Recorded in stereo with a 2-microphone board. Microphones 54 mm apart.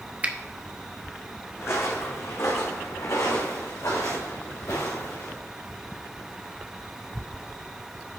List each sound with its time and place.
0.2 s a finger snap: 30° right (ahead or behind), 0.9 m
1.6 s footsteps: 55° left (ahead or behind), 2.5 m; by 5.3 s 75° left (ahead or behind), 5 m